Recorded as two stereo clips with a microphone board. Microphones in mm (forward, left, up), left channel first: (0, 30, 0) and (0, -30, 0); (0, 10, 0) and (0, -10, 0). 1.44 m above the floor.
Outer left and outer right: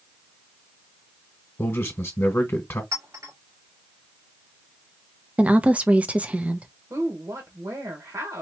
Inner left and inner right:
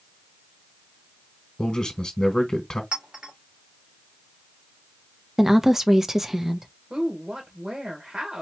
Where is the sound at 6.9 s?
70° right (ahead or behind), 2.0 m.